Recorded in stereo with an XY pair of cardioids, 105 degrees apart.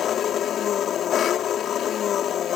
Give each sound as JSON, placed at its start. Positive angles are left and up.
{"t": 0.0, "sound": "an engine running", "azimuth_deg": 65}